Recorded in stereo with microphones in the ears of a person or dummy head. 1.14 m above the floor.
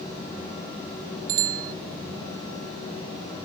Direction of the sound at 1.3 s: 75° right (ahead or behind).